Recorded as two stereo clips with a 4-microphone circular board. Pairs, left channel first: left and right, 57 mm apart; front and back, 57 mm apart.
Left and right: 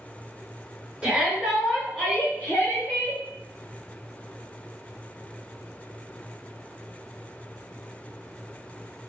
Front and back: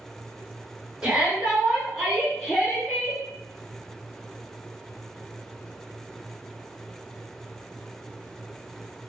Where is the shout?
125° right, 1.1 m; by 3.2 s 80° left, 1.5 m.